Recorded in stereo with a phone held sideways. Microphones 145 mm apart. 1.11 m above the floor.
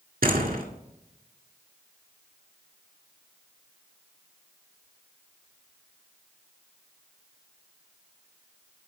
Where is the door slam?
80° right, 1.7 m.